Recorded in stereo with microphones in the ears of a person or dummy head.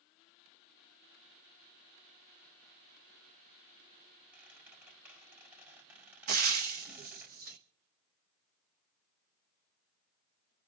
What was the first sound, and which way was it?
A squeak, 10° right (ahead or behind).